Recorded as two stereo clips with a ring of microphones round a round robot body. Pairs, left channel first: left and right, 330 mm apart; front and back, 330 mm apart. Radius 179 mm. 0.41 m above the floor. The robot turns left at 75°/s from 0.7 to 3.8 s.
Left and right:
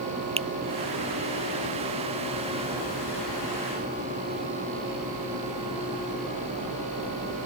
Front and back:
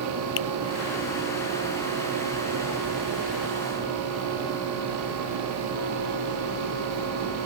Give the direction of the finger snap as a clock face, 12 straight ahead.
1 o'clock.